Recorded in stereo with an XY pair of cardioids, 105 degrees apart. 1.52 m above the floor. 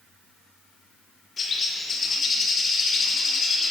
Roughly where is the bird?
Ahead left.